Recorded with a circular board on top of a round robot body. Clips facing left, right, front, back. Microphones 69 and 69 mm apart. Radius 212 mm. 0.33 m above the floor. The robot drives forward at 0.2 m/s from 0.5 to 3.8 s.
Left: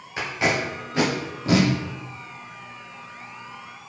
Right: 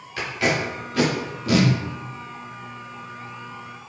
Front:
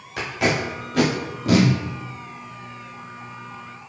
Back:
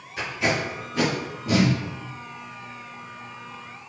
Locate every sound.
0.2 s tape being pulled: 25° left, 0.9 m; by 1.7 s 30° left, 0.6 m